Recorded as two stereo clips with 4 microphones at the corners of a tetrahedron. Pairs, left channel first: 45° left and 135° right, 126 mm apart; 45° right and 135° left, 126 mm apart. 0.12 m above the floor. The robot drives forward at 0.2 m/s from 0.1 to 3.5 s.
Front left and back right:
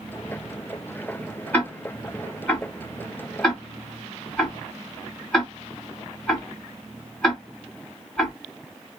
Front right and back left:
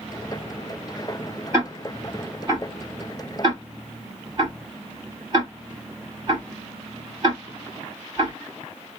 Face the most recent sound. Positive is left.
turn(degrees=130)